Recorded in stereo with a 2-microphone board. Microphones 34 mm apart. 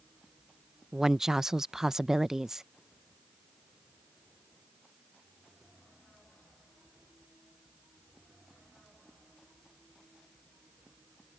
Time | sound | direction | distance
0.9 | a woman speaking | 10° right (ahead or behind) | ?